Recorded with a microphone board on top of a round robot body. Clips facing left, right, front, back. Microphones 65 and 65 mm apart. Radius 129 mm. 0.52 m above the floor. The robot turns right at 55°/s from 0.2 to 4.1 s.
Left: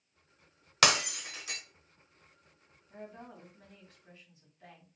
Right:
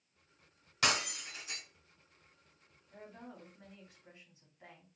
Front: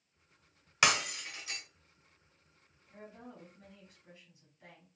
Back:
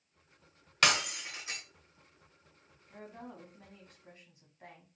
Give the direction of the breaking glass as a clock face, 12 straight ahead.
9 o'clock.